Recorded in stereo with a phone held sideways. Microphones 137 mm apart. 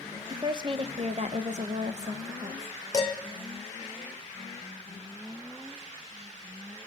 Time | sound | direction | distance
0.3 | a woman speaking | 25° right (ahead or behind) | 0.8 m
2.9 | dishes clattering | 25° left (ahead or behind) | 1.9 m